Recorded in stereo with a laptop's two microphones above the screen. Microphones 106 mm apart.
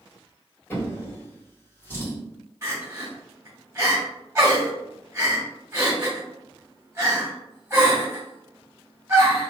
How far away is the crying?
About 1.5 m.